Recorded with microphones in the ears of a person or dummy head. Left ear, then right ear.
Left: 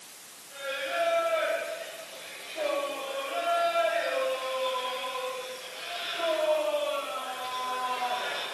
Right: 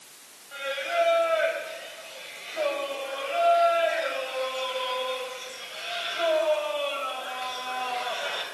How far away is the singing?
About 5 m.